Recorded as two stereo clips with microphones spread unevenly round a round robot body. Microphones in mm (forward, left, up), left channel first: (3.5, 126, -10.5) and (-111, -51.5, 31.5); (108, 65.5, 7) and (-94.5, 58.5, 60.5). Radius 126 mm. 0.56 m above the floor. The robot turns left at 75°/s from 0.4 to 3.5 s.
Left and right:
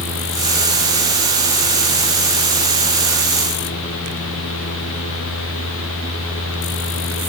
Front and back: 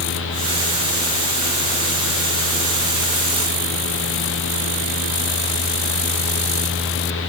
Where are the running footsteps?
I don't hear running footsteps.